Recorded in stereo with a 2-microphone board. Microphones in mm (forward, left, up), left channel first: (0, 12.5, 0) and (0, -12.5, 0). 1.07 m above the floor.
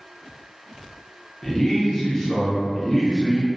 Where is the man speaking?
20° left (ahead or behind), 0.7 m.